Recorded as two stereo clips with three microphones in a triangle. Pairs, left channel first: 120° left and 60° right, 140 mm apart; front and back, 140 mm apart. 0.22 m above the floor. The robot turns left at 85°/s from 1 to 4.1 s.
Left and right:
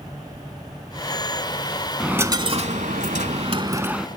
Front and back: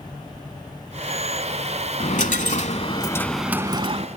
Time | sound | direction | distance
2.0 | a dropped coin | 25° left | 0.7 m